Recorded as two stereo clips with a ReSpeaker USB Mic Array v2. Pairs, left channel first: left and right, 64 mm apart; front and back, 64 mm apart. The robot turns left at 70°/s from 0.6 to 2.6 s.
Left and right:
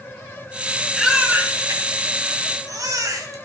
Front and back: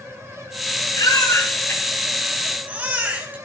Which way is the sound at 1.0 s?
Straight ahead.